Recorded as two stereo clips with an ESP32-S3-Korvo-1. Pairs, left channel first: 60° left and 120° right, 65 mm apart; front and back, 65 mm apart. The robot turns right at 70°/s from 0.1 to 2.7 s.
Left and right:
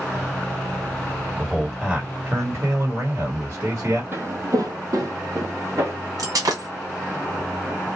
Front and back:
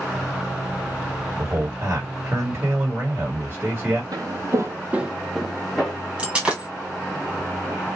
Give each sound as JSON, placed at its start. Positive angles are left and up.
{"t": 1.4, "sound": "a man speaking", "azimuth_deg": 135, "distance_m": 1.6}
{"t": 4.1, "sound": "footsteps", "azimuth_deg": -170, "distance_m": 1.1}
{"t": 6.2, "sound": "breaking glass", "azimuth_deg": -105, "distance_m": 1.6}